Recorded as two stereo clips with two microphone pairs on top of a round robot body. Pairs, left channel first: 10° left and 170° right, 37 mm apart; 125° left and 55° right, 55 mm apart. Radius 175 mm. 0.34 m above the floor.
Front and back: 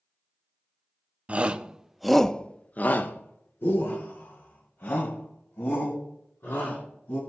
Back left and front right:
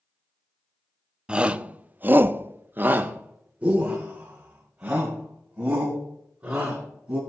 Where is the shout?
125° right, 1.2 m; by 7.2 s 20° left, 4.5 m.